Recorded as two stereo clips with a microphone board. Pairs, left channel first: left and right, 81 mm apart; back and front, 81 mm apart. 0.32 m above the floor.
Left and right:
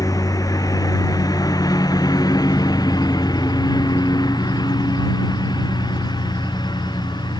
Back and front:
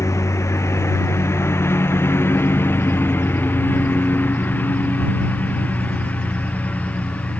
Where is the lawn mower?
130° left; by 7.4 s 110° left.